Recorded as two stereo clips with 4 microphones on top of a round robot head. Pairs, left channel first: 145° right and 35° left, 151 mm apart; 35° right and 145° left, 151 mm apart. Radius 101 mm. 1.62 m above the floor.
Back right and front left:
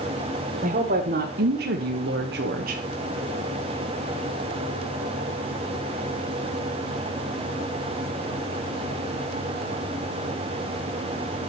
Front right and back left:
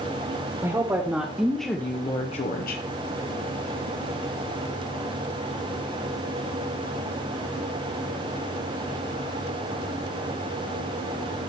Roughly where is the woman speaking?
Left.